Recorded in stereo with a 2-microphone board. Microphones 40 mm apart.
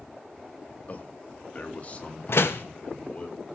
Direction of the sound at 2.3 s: 75° left (ahead or behind).